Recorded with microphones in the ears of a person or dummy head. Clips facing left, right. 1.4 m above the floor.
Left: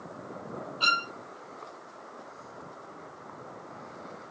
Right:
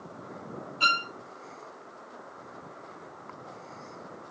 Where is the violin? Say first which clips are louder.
Right 1 dB; 30° right (ahead or behind), 1.5 m.